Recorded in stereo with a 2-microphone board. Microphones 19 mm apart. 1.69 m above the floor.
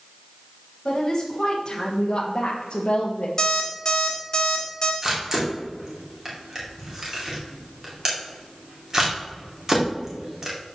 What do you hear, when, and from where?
0.8 s a woman speaking: 20° left (ahead or behind), 2 m; by 3.3 s 80° left, 1.0 m
3.4 s an alarm clock: 35° left (ahead or behind), 2.5 m
5.0 s a camera shutter: 25° right (ahead or behind), 2.5 m